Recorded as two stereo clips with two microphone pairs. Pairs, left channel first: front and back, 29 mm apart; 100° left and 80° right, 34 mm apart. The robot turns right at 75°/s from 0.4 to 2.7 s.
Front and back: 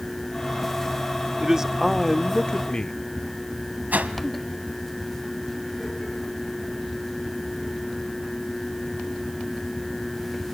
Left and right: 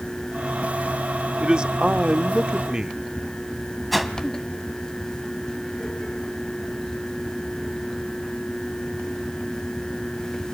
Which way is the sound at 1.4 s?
135° right.